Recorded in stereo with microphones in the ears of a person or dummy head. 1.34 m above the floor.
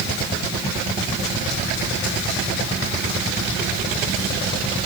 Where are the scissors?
I don't hear scissors.